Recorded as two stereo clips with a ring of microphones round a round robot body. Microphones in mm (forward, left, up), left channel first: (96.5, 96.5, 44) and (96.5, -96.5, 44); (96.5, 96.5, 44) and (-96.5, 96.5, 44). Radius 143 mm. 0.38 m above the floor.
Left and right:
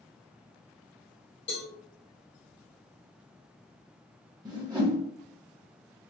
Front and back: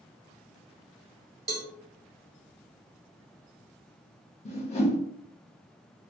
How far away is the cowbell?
About 1.3 m.